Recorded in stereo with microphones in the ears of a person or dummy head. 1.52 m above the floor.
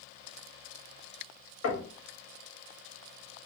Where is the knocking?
85° left, 1.2 m.